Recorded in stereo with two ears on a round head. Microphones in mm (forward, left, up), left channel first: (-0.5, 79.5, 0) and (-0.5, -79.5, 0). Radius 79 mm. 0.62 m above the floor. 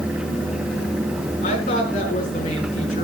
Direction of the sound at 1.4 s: 45° left (ahead or behind).